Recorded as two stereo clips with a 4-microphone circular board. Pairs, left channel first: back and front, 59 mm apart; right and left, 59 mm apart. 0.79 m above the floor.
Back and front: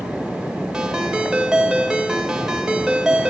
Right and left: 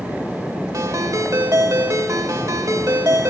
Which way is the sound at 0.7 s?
80° left.